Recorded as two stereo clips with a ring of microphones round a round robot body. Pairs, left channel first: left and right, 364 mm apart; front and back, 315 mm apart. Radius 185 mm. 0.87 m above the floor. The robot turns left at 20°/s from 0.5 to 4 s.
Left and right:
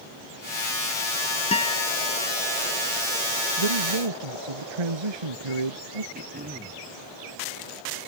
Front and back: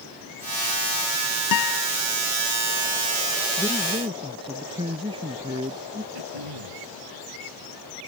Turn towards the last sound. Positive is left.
turn(degrees=-160)